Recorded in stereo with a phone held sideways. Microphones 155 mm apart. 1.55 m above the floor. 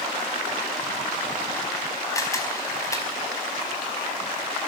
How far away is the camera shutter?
About 4.5 m.